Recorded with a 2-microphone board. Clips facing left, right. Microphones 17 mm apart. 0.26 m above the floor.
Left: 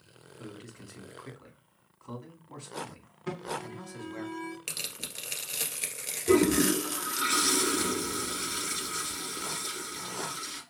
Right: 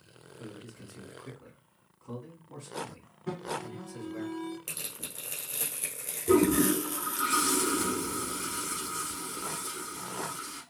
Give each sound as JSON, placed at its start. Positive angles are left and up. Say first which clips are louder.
{"t": 0.4, "sound": "a man speaking", "louder": "even", "side_deg": 50, "distance_m": 2.5}
{"t": 3.3, "sound": "an alarm", "louder": "even", "side_deg": 55, "distance_m": 1.6}
{"t": 4.7, "sound": "tearing paper", "louder": "left 4 dB", "side_deg": 55, "distance_m": 1.4}
{"t": 6.3, "sound": "a toilet flushing", "louder": "even", "side_deg": 70, "distance_m": 1.9}